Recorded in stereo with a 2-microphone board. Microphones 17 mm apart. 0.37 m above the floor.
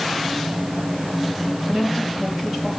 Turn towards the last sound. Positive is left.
turn(degrees=-20)  # may be behind; listen again after turning